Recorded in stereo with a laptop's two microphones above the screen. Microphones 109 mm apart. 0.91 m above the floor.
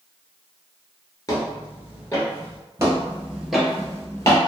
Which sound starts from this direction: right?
Footsteps, at 2.8 s.